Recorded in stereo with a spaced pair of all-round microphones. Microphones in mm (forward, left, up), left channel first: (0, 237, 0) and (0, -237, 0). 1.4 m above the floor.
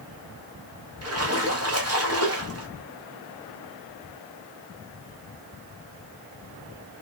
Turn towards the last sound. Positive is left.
turn(degrees=-30)  # may be behind; listen again after turning